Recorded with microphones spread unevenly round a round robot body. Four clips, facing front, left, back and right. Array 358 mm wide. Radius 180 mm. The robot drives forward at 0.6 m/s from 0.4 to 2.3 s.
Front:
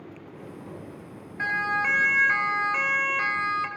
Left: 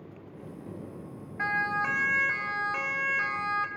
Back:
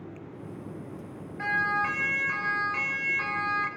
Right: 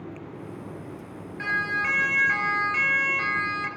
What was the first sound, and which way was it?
A siren, 75° left.